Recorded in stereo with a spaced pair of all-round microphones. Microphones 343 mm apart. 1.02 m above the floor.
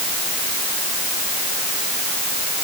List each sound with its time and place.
Only background noise.